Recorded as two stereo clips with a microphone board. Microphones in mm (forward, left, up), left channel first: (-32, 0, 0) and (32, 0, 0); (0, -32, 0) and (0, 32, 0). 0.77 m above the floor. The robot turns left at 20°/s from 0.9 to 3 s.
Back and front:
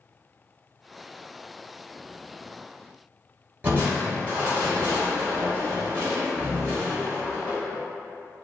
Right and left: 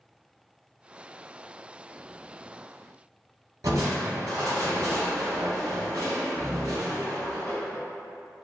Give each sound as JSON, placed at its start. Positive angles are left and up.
{"t": 3.6, "sound": "crushing", "azimuth_deg": 55, "distance_m": 1.6}